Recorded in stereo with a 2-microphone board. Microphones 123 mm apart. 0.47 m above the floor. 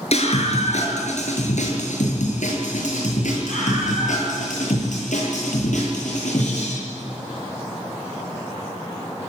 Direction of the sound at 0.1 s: 60° left (ahead or behind).